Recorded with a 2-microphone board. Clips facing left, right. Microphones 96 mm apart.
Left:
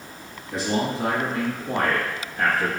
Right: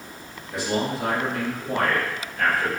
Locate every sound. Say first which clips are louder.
0.5 s a man speaking: left 1 dB; 30° left (ahead or behind), 1.5 m